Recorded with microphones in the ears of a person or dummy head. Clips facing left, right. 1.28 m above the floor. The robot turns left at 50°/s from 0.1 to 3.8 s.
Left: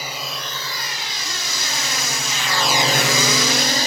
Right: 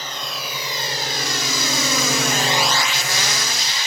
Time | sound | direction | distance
0.0 | a drone | 10° left (ahead or behind) | ?